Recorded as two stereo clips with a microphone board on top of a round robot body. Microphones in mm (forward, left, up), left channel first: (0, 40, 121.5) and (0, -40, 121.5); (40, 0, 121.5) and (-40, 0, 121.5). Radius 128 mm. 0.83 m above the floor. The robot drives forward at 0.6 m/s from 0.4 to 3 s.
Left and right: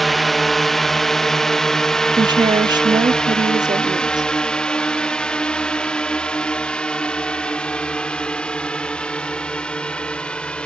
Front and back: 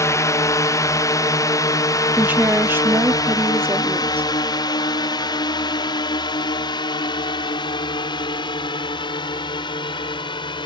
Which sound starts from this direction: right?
A woman speaking, at 2.2 s.